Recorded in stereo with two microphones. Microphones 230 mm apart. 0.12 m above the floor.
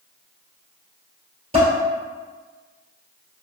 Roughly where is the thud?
I don't hear a thud.